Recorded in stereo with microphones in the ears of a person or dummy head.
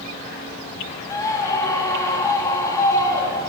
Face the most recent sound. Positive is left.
turn(degrees=15)  # may be behind; listen again after turning